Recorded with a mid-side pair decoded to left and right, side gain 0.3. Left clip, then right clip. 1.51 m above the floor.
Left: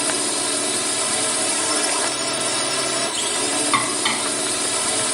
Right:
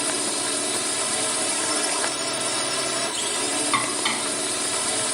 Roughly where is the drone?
Ahead left.